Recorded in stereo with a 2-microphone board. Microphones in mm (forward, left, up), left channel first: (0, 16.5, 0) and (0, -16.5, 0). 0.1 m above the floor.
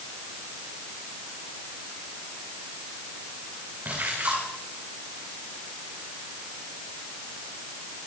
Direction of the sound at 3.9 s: 55° right (ahead or behind).